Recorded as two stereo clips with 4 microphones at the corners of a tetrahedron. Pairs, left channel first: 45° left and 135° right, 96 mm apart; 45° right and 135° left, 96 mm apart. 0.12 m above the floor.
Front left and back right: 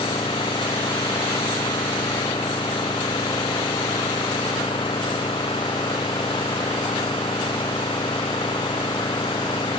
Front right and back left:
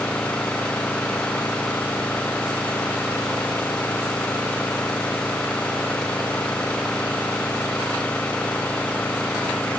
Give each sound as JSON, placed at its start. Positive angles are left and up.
{"t": 0.0, "sound": "an engine running", "azimuth_deg": 30}